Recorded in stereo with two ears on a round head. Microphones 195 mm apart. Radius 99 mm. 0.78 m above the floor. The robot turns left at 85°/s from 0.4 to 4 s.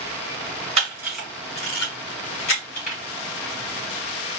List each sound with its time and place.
0.8 s a camera shutter: 35° right (ahead or behind), 2 m; by 3.0 s 25° left (ahead or behind), 2 m